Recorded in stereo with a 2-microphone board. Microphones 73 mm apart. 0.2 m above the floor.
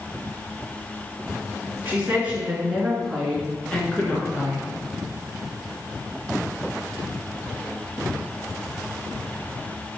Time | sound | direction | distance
1.9 | a woman speaking | 25° right (ahead or behind) | 2.5 m